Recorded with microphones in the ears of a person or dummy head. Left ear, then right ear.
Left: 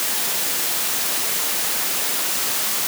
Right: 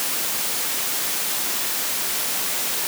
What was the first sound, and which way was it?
Only background noise.